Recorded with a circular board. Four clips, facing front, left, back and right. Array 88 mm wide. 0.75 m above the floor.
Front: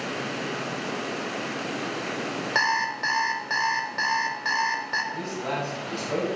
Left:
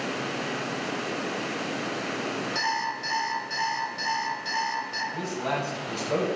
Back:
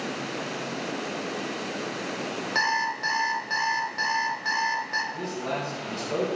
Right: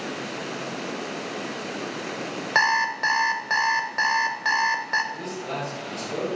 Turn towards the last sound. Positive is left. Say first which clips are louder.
# left 2 dB, front 1 dB
turn(degrees=75)